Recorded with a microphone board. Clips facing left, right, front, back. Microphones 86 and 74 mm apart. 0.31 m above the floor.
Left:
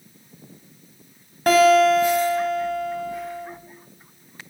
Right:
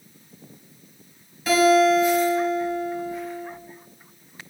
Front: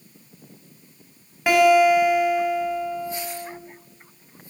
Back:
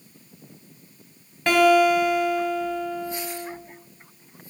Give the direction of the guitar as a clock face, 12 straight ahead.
9 o'clock.